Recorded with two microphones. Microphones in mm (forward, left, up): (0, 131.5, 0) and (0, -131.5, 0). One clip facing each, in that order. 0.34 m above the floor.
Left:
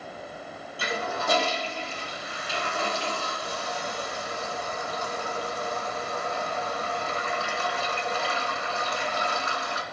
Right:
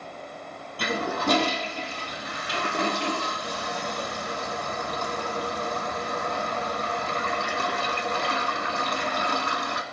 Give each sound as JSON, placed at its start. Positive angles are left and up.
{"t": 0.8, "sound": "a toilet flushing", "side_deg": -85, "distance_m": 0.9}